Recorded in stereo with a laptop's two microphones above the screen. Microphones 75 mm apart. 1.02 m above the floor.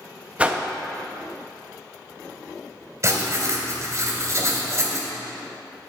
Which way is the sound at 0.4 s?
15° right (ahead or behind).